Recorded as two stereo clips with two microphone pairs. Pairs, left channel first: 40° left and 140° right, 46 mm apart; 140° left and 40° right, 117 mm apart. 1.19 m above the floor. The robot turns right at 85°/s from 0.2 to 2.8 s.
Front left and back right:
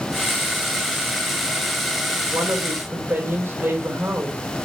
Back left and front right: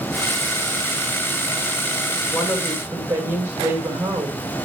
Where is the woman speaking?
145° right, 2 m; by 4.6 s 105° right, 2 m.